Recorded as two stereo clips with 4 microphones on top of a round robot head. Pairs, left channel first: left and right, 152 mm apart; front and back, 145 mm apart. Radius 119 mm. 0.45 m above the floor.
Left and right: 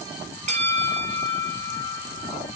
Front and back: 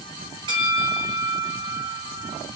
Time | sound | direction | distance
0.5 | a bell | 125° right | 2 m